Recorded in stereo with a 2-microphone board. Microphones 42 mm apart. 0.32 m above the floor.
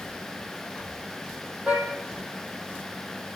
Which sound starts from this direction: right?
A car horn, at 1.7 s.